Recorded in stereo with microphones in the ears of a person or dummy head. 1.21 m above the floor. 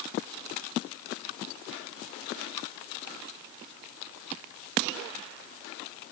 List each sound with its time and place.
Only background noise.